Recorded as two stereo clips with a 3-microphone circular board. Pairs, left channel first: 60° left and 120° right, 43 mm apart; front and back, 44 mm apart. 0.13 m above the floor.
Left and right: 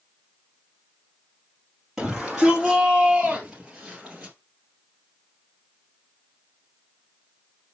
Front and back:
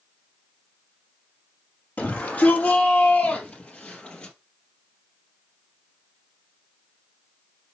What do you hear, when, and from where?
2.0 s a shout: 30° right, 3.5 m; by 4.3 s 40° right, 2.5 m